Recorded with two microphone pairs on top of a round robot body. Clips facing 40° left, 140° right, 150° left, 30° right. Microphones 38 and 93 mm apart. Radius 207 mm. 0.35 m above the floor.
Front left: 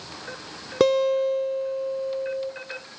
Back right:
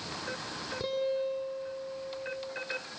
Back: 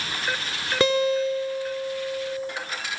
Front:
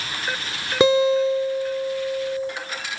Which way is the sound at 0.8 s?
45° left.